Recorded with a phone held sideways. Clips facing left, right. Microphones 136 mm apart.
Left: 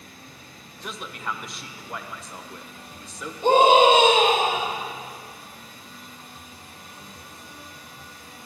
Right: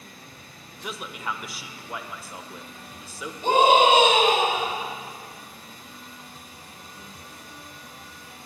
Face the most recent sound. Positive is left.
turn(degrees=30)  # may be behind; listen again after turning